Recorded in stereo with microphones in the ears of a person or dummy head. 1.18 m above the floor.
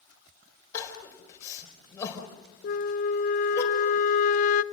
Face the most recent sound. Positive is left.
turn(degrees=45)  # may be behind; listen again after turning